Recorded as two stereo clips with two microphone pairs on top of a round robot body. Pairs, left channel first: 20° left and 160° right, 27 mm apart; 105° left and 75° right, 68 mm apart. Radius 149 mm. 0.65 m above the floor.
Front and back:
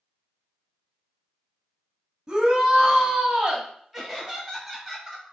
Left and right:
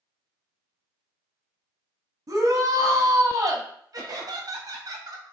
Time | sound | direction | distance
2.3 | a shout | 85° right | 1.1 m
3.9 | laughter | 60° right | 1.9 m